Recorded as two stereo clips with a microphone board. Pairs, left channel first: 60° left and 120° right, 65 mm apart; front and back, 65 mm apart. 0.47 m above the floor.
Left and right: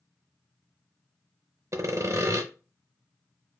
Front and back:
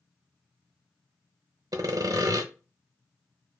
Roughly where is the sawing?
Behind.